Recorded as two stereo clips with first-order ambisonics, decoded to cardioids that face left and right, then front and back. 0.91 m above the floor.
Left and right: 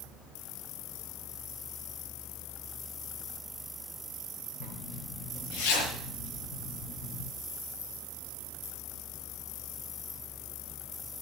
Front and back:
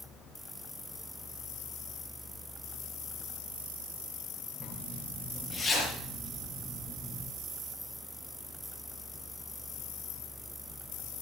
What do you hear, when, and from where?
4.6 s a zipper: 85° left, 6.5 m